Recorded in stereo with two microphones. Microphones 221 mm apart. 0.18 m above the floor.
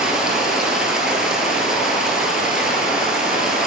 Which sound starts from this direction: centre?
Running water, at 0.0 s.